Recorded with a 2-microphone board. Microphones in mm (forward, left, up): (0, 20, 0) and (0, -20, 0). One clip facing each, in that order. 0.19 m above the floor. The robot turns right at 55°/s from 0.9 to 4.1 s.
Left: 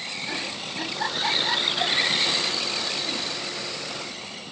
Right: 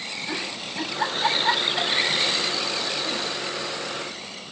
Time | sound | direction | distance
0.3 | a giggle | 10° right (ahead or behind) | 9 m